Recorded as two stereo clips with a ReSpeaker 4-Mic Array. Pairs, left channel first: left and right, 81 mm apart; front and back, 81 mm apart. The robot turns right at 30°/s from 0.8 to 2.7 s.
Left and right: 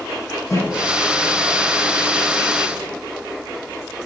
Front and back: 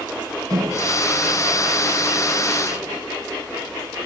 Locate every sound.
0.5 s a microwave: 145° left, 3 m; by 3.0 s 160° right, 3 m